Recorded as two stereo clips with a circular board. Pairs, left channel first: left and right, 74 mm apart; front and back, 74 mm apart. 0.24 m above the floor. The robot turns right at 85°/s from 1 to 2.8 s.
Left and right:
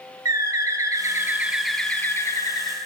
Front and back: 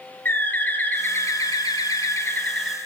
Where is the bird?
60° right, 0.8 m; by 2.8 s 90° left, 0.8 m.